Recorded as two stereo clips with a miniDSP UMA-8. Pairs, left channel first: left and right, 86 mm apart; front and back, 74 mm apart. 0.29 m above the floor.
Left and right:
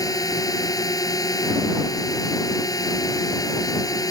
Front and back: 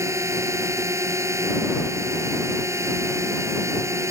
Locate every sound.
0.0 s a drone: 130° left